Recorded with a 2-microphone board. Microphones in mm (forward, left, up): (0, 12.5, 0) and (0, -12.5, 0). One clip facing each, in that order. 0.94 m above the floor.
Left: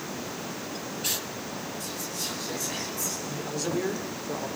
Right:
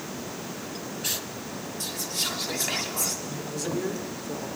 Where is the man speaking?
15° left (ahead or behind), 3.5 m.